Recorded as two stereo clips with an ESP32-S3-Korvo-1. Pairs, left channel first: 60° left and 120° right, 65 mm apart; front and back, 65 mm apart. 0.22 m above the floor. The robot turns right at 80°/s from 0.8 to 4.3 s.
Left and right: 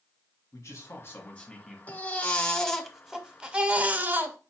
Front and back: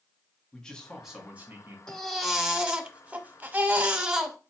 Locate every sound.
0.5 s a man speaking: 75° left, 1.6 m; by 1.8 s 155° left, 1.6 m
1.9 s a baby crying: 65° left, 0.8 m; by 4.4 s 100° right, 0.8 m